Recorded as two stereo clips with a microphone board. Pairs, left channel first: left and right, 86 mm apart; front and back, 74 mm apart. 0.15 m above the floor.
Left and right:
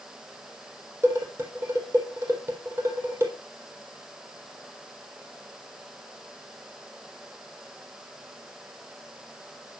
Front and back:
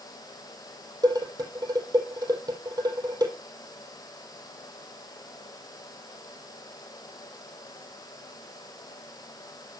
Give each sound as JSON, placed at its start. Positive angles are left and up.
{"t": 1.0, "sound": "dishes clattering", "azimuth_deg": -150, "distance_m": 4.0}